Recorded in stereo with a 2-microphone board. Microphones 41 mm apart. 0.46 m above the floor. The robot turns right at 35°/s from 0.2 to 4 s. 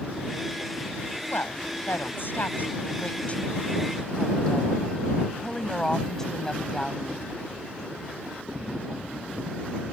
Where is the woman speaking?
70° left; by 7.2 s 165° left.